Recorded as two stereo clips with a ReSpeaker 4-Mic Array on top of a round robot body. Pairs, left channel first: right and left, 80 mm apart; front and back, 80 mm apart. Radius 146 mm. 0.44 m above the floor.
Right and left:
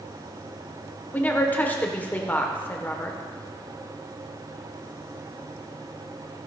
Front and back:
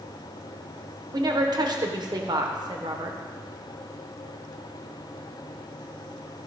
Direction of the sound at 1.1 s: 160° right.